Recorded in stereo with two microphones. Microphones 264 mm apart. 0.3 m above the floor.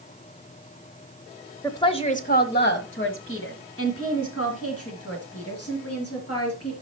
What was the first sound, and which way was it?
A woman speaking, 10° left (ahead or behind).